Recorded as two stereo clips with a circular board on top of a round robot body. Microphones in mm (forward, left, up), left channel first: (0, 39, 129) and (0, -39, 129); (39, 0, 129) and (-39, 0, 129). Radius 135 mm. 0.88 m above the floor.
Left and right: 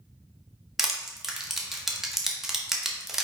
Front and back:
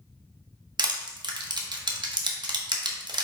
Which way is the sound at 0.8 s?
175° right.